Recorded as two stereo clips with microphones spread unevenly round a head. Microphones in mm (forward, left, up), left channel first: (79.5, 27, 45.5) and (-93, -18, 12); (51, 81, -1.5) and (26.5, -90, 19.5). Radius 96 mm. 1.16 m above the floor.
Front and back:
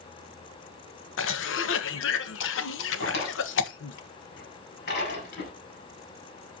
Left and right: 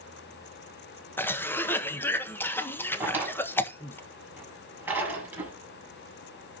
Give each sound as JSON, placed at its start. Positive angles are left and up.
{"t": 1.2, "sound": "a cough", "azimuth_deg": 10, "distance_m": 1.4}
{"t": 3.0, "sound": "a drawer", "azimuth_deg": -20, "distance_m": 5.0}